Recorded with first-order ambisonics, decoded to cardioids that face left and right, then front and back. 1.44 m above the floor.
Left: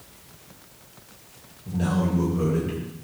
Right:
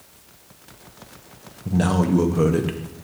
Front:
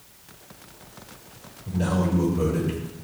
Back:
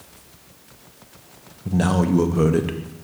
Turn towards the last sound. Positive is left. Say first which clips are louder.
# right 5 dB, back 5 dB
turn(degrees=-140)